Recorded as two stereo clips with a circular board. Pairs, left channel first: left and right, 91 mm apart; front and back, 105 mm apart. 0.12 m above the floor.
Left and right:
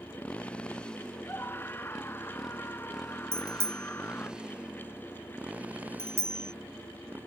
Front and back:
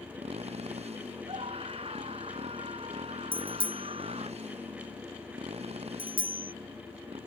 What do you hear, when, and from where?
0.0 s a motorcycle: 165° left; by 7.3 s 160° right
1.3 s a scream: 155° left
3.3 s a bicycle bell: 150° right